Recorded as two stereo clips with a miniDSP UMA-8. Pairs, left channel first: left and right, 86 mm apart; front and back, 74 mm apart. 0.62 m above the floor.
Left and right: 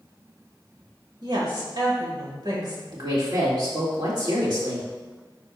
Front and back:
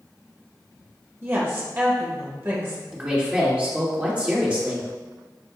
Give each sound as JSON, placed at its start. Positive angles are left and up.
{"t": 1.2, "sound": "a woman speaking", "azimuth_deg": -125, "distance_m": 2.0}
{"t": 2.9, "sound": "a woman speaking", "azimuth_deg": -110, "distance_m": 1.9}